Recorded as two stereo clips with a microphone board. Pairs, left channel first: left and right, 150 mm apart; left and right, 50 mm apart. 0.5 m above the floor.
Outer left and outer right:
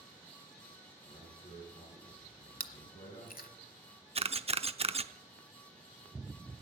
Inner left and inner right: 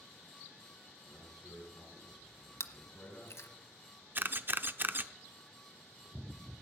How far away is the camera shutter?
About 0.6 m.